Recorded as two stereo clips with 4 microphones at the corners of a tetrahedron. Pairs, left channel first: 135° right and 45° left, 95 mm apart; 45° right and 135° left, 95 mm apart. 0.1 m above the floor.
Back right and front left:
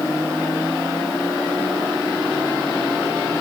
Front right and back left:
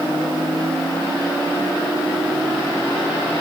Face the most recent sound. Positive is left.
No sound to turn to.